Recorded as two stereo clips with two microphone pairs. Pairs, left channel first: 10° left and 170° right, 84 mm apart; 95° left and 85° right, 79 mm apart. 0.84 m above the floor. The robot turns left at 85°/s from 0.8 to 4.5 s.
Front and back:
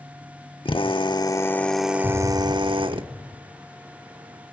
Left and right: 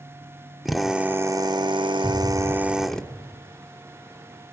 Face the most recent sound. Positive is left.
turn(degrees=-40)